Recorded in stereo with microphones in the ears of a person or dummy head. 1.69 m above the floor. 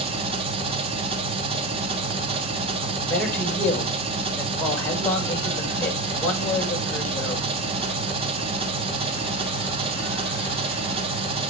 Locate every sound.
0.0 s an engine running: 30° right (ahead or behind), 3 m
3.1 s a man speaking: 5° left (ahead or behind), 6 m